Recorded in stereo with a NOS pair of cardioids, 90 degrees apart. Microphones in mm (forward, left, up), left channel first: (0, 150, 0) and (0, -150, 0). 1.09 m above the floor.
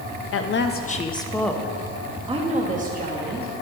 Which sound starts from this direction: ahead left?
A woman speaking, at 0.3 s.